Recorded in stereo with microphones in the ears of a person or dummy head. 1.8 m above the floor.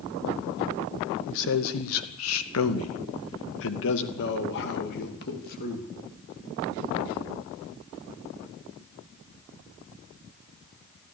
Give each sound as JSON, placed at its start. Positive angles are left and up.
{"t": 1.3, "sound": "a man speaking", "side_deg": 65, "distance_m": 1.9}